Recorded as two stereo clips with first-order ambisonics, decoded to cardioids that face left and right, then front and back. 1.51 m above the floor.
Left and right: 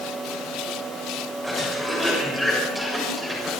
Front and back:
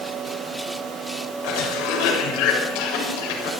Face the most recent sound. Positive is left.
turn(degrees=0)